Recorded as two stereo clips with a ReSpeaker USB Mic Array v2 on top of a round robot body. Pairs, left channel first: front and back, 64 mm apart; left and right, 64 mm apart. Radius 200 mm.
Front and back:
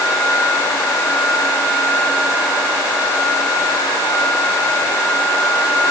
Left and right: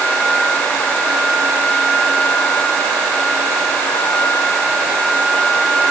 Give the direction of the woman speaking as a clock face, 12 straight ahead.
No woman speaking in this recording.